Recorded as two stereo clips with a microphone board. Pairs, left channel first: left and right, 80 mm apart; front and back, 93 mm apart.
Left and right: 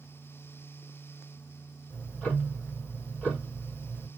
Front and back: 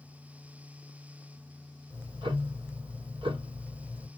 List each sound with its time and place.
1.9 s ticking: 165° left, 3 m